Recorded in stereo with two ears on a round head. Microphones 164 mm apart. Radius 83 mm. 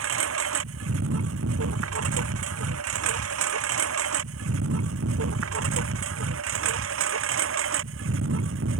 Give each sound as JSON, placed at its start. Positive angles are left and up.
{"t": 0.0, "sound": "a lawn mower", "side_deg": -75}